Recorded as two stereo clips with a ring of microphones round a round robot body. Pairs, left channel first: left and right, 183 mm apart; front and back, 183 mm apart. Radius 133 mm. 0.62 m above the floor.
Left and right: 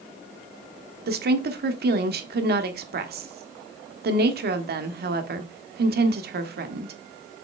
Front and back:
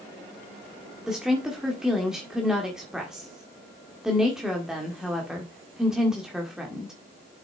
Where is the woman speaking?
95° right, 1.5 m.